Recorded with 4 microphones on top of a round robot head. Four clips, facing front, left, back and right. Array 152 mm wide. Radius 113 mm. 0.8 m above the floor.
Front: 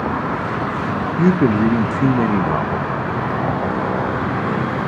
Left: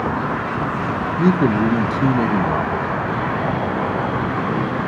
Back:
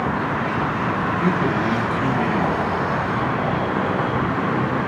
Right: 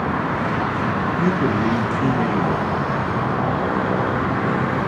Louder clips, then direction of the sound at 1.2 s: Left 5 dB, front 9 dB; 30° left.